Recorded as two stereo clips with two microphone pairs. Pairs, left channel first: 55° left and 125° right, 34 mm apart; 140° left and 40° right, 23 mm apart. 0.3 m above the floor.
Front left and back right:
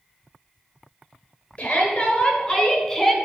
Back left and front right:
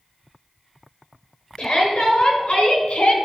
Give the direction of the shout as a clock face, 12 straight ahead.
9 o'clock.